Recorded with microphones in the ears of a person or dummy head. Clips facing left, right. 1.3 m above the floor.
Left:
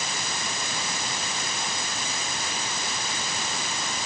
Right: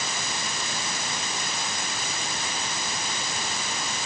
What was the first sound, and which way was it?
Only background noise.